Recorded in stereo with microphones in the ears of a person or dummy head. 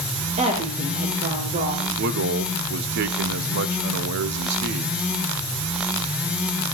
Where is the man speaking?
65° right (ahead or behind), 0.6 m.